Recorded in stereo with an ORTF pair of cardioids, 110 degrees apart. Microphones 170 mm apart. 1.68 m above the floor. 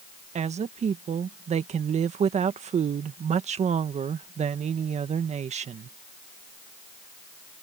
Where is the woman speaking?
40° right.